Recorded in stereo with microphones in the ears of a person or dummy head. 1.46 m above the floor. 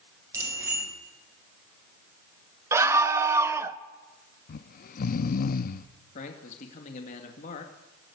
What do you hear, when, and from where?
0.3 s a bicycle bell: 15° right (ahead or behind), 5.5 m
2.7 s a scream: 15° right (ahead or behind), 1.0 m
4.5 s snoring: 50° left (ahead or behind), 0.7 m
6.2 s a man speaking: 45° left (ahead or behind), 2 m